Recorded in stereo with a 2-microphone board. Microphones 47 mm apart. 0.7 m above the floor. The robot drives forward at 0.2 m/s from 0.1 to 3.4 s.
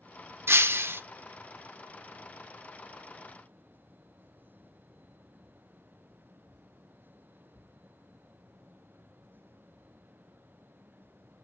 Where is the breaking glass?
60° right (ahead or behind), 0.6 m; by 1.0 s 55° right (ahead or behind), 0.6 m.